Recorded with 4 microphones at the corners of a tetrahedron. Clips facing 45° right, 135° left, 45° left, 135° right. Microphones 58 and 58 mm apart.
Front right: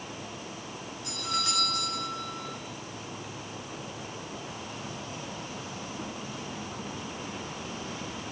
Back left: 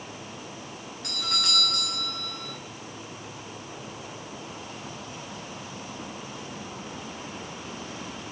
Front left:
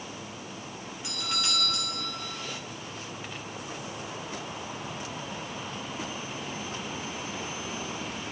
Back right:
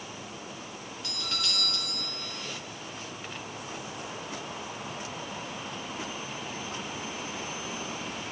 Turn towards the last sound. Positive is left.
turn(degrees=120)